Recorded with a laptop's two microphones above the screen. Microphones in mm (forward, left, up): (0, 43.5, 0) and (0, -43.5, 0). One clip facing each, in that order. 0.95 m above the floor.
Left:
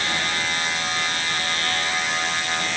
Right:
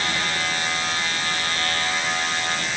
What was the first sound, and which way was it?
Only background noise.